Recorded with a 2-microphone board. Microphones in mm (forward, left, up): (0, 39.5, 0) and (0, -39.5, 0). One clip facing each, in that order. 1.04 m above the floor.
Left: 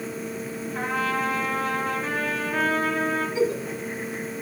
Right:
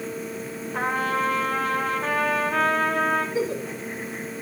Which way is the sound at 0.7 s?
70° right (ahead or behind).